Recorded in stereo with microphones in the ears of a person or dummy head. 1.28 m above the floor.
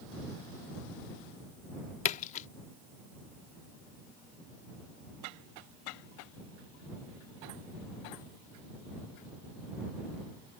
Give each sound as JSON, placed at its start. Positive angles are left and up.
{"t": 2.0, "sound": "a splash", "side_deg": 35}